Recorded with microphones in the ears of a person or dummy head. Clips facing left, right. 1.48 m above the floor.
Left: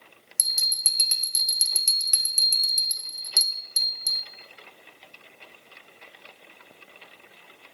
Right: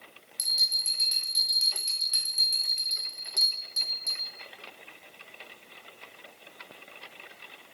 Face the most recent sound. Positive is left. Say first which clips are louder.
# left 1 dB
turn(degrees=65)  # may be behind; listen again after turning